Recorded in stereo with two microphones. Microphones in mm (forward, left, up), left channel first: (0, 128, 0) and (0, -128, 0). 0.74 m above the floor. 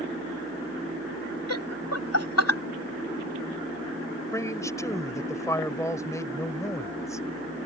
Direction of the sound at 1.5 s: 70° left (ahead or behind).